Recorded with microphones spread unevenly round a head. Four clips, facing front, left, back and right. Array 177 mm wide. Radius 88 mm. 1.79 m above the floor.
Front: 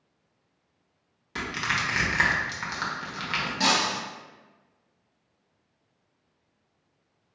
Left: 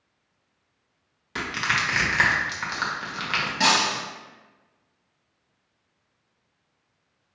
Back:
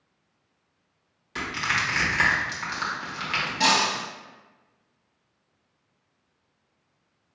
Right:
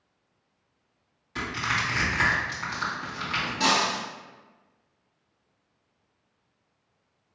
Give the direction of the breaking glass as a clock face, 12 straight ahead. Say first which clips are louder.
Left 2 dB, back 3 dB; 8 o'clock.